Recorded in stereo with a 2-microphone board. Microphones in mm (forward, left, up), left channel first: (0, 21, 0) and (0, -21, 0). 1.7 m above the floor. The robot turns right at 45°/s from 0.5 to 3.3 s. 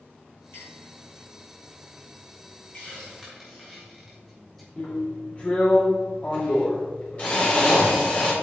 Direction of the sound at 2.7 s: 25° left (ahead or behind).